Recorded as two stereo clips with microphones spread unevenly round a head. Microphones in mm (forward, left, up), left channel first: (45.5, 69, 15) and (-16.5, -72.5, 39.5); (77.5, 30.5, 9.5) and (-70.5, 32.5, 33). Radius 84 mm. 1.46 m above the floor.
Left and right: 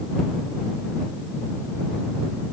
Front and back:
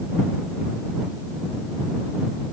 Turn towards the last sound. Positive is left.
No sound to turn to.